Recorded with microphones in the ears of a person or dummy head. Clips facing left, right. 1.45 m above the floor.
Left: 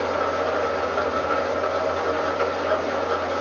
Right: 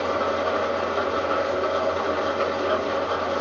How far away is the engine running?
About 1.1 m.